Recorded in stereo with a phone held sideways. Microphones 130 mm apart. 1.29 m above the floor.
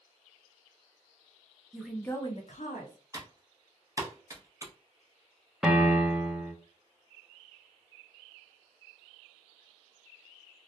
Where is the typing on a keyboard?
25° right (ahead or behind), 0.7 m.